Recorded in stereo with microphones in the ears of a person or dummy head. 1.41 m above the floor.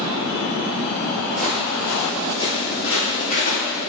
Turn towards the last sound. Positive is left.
turn(degrees=45)  # may be behind; listen again after turning